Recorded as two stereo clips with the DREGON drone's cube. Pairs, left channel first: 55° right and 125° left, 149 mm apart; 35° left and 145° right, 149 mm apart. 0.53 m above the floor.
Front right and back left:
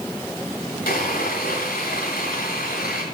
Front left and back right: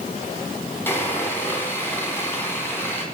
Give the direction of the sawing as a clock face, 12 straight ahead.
1 o'clock.